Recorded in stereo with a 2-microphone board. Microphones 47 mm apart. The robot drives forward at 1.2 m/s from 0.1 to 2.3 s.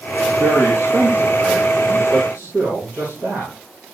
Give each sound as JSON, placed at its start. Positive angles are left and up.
{"t": 0.4, "sound": "a man speaking", "side_deg": -50, "distance_m": 6.5}